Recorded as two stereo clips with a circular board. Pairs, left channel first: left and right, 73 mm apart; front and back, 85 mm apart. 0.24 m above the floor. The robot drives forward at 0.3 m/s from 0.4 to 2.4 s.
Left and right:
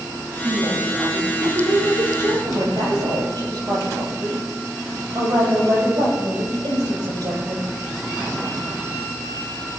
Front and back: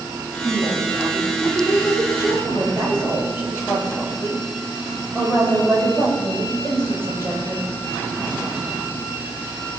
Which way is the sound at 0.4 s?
110° right.